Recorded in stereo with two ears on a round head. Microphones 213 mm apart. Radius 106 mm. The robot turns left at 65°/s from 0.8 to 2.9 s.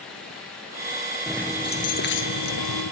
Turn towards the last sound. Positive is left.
turn(degrees=75)